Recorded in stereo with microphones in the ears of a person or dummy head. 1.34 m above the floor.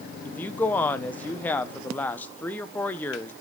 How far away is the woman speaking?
About 0.7 m.